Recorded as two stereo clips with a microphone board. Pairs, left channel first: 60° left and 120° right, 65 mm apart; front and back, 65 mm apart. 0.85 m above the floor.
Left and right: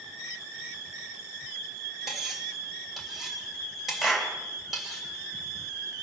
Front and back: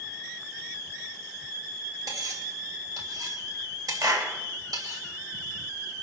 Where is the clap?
155° left, 3.5 m.